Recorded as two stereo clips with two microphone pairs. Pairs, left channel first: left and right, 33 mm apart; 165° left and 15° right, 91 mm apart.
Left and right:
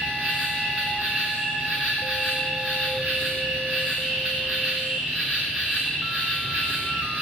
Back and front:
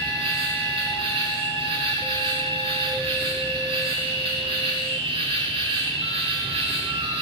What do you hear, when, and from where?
0.0 s an insect: 35° right, 9.5 m